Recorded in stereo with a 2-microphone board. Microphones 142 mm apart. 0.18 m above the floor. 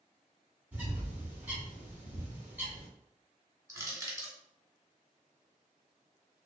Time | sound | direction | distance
0.7 | a bird | 10° right (ahead or behind) | 1.6 m
3.7 | crushing | 25° right (ahead or behind) | 0.9 m